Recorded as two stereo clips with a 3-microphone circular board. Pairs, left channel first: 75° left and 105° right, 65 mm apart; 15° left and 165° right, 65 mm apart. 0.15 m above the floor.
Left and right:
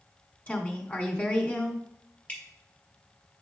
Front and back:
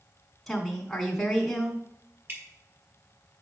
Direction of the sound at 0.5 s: 100° left.